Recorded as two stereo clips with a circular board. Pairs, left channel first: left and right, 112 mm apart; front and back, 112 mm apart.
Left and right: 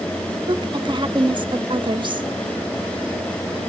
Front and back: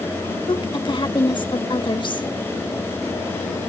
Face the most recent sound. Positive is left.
turn(degrees=-45)